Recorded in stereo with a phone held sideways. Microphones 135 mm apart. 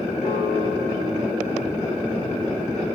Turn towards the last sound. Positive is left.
turn(degrees=65)  # may be behind; listen again after turning